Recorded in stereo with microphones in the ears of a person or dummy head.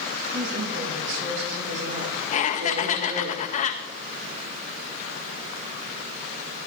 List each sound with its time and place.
0.3 s a woman speaking: 55° right (ahead or behind), 7.5 m; by 3.3 s 35° right (ahead or behind), 3.5 m
2.3 s laughter: 40° left (ahead or behind), 1.6 m